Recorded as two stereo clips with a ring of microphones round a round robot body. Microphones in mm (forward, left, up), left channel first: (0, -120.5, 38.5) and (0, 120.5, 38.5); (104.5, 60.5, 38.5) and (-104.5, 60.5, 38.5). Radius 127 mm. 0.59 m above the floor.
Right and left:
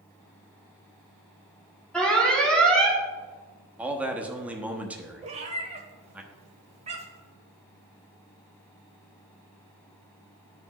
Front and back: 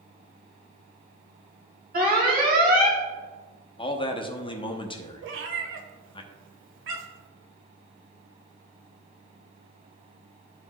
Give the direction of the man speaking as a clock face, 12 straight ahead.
12 o'clock.